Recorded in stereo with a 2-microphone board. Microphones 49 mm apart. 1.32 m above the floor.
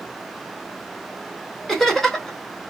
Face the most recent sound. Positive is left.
turn(degrees=10)  # may be behind; listen again after turning